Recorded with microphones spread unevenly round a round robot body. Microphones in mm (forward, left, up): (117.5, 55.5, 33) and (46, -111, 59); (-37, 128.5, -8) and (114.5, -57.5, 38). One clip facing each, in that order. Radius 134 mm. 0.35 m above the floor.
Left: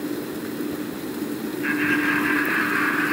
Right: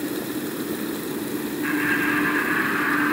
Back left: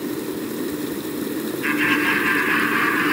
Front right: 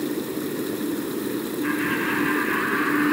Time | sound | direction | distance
1.6 | laughter | 120° left | 7.5 m